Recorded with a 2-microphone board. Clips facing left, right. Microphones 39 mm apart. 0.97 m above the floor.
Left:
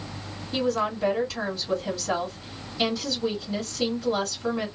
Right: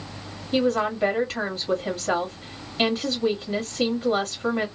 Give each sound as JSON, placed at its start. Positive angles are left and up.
{"t": 0.5, "sound": "a woman speaking", "side_deg": -50, "distance_m": 2.5}